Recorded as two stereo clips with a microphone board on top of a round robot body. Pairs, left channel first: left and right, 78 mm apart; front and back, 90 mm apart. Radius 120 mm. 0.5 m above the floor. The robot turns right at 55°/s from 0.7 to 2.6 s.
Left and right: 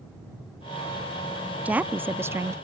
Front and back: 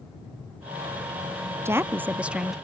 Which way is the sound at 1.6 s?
145° right.